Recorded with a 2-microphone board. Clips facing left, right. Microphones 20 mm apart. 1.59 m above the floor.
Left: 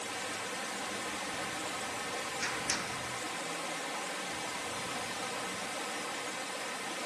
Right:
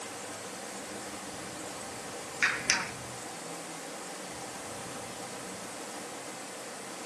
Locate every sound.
0.0 s running water: 50° left (ahead or behind), 2 m
2.4 s a clap: 60° right (ahead or behind), 1.2 m